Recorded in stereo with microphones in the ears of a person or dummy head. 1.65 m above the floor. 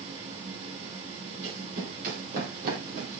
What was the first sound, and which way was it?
A fan, 40° right (ahead or behind).